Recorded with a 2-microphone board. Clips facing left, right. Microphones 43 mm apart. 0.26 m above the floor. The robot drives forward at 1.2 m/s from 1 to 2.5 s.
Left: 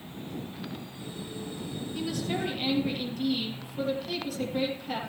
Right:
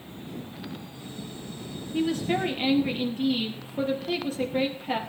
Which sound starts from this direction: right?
A woman speaking, at 1.9 s.